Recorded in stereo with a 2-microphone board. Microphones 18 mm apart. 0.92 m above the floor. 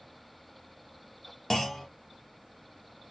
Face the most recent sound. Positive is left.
turn(degrees=25)  # may be behind; listen again after turning